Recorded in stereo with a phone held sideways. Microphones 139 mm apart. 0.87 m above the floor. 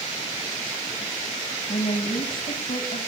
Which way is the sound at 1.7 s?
85° left.